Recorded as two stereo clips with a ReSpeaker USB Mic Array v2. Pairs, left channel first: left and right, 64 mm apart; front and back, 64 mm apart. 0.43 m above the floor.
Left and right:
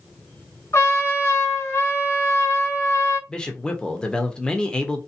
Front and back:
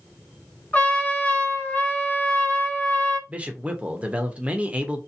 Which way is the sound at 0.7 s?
60° left.